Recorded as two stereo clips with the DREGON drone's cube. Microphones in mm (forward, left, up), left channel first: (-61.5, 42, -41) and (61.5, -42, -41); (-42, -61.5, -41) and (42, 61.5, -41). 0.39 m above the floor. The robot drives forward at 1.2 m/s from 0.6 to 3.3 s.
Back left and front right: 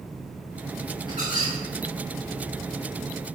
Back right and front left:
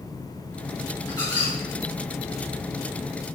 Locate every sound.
1.1 s a squeak: 165° left, 4 m; by 1.5 s 170° left, 4.5 m